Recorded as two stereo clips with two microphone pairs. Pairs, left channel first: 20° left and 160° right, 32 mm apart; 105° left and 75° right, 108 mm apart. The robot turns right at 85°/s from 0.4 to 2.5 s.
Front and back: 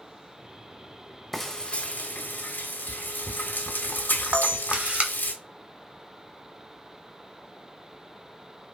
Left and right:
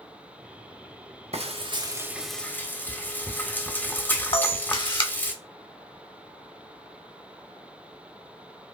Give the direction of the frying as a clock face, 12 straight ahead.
2 o'clock.